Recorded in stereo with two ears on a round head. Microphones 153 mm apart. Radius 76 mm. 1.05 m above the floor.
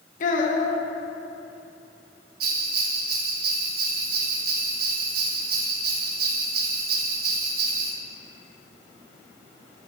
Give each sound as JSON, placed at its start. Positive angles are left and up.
{"t": 0.2, "sound": "a child speaking", "side_deg": 50, "distance_m": 1.0}
{"t": 2.4, "sound": "a bell", "side_deg": -60, "distance_m": 0.9}